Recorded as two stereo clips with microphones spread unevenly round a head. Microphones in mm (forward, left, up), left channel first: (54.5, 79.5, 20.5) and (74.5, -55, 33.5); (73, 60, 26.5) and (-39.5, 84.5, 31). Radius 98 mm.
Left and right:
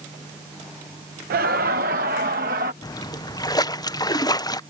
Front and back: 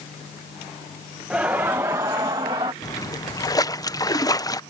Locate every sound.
1.3 s laughter: 105° right; by 2.7 s 125° right
2.8 s a splash: 40° left